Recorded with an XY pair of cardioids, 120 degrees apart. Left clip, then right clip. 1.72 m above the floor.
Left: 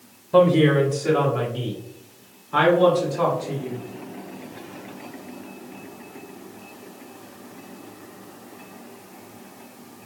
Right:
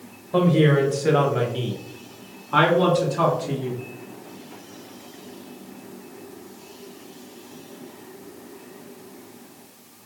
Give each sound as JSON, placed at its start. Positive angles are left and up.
{"t": 0.3, "sound": "a woman speaking", "azimuth_deg": 20, "distance_m": 0.6}